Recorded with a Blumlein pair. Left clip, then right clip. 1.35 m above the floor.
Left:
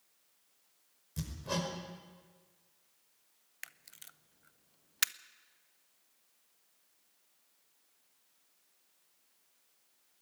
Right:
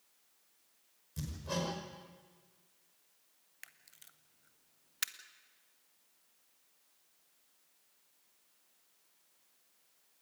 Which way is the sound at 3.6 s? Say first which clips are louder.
Left 6 dB; 20° left.